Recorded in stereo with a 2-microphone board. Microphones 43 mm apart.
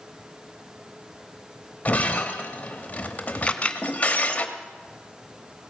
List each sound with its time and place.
1.9 s breaking glass: 35° left (ahead or behind), 0.9 m
3.5 s a camera shutter: 30° left (ahead or behind), 0.6 m